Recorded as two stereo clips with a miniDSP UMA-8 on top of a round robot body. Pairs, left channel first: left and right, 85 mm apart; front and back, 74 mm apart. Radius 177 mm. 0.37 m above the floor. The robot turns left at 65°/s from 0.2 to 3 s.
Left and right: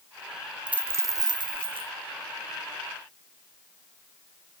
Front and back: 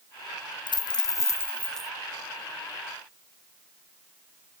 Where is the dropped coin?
10° right, 0.8 m; by 1.9 s 95° right, 0.8 m.